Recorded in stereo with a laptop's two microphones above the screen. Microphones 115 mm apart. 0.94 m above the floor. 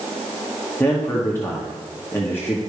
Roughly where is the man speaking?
Centre.